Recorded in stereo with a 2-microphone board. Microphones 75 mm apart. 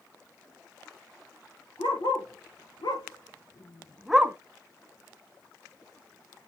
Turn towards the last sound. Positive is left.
turn(degrees=-30)  # may be behind; listen again after turning